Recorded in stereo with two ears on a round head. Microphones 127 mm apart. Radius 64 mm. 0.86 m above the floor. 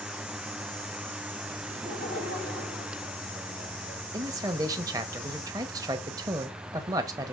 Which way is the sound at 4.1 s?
25° right (ahead or behind).